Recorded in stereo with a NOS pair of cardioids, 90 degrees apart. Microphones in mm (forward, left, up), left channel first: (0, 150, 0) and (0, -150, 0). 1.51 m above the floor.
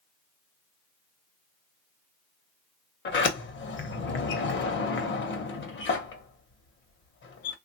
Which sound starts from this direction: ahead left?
A sliding door, at 3.0 s.